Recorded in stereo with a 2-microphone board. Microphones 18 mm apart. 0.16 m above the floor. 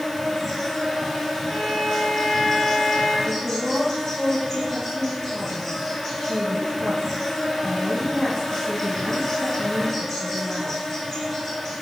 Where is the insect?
5° left (ahead or behind), 0.9 m.